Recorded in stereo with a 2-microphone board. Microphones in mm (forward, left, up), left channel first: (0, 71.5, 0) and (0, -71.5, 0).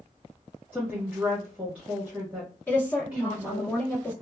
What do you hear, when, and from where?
0.7 s a woman speaking: 10° right (ahead or behind), 1.4 m
2.7 s a woman speaking: 20° left (ahead or behind), 1.7 m